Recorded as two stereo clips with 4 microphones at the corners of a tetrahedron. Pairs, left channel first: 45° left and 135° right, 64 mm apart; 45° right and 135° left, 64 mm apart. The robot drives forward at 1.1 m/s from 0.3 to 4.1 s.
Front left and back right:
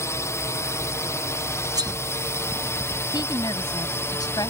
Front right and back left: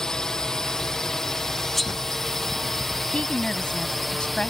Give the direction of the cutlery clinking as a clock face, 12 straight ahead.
4 o'clock.